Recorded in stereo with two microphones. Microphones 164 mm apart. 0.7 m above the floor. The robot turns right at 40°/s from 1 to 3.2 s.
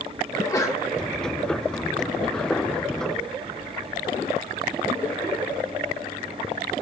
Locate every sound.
0.3 s a sneeze: 20° left (ahead or behind), 1.0 m